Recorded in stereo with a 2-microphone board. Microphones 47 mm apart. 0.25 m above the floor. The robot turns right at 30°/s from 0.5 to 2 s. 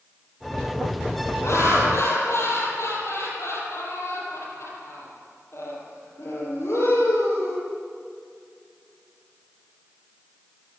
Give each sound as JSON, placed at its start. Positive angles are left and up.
{"t": 1.4, "sound": "laughter", "side_deg": 80, "distance_m": 8.5}